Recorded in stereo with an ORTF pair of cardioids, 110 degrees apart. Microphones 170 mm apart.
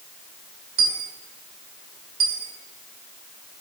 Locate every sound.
0.8 s a dropped coin: 60° right, 1.9 m